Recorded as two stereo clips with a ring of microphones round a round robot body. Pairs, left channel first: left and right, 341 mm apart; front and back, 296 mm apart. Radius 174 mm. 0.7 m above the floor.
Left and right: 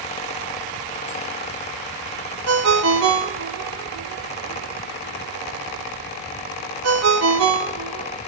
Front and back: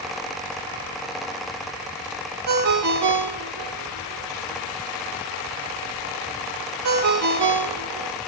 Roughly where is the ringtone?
Behind right.